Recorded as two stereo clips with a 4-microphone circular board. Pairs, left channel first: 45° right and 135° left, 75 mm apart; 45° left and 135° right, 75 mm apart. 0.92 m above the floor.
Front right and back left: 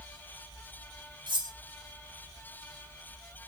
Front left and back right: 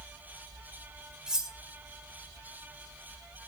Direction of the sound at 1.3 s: 145° left.